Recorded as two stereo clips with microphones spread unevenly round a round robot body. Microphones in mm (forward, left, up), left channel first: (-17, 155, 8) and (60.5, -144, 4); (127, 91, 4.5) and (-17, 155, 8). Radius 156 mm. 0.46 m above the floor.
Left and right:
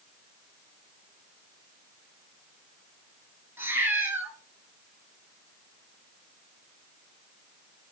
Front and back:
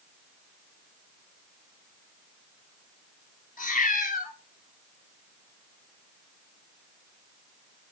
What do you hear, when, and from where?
3.6 s a cat meowing: 10° left, 1.9 m